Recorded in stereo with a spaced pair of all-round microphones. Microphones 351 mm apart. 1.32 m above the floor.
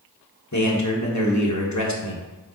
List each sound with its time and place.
0.5 s a man speaking: 50° left (ahead or behind), 1.4 m